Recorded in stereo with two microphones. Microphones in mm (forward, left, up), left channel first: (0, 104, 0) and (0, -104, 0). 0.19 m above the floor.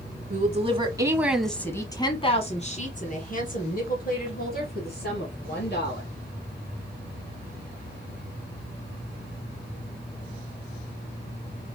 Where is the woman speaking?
35° right (ahead or behind), 1.2 m; by 6.1 s 50° left (ahead or behind), 4 m.